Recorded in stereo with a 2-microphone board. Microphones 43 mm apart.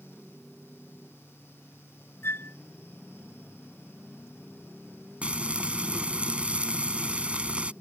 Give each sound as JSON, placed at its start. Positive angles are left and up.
{"t": 2.2, "sound": "a flute", "side_deg": 70}
{"t": 5.2, "sound": "frying", "side_deg": -30}